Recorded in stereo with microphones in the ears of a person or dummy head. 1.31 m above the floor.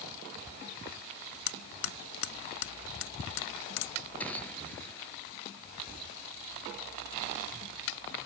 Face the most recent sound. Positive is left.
turn(degrees=10)  # may be behind; listen again after turning